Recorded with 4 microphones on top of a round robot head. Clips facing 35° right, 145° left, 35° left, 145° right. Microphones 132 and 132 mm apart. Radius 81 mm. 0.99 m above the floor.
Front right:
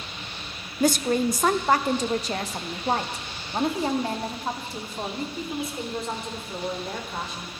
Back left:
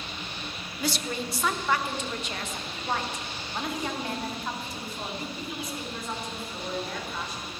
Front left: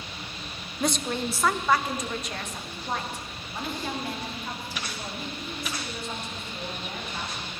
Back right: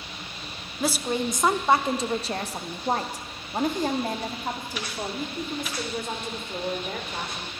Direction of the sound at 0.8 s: 55° right.